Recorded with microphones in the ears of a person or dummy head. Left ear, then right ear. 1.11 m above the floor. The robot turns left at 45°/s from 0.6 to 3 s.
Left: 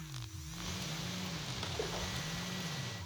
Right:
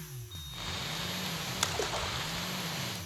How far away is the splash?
About 1.2 m.